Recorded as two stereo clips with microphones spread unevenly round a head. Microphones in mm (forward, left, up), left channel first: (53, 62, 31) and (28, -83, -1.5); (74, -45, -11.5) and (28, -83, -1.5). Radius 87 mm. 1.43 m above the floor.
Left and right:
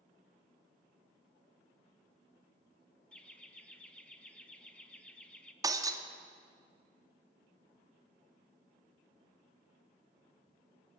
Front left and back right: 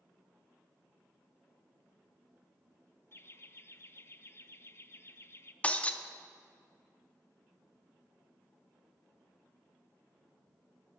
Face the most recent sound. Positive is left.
turn(degrees=-30)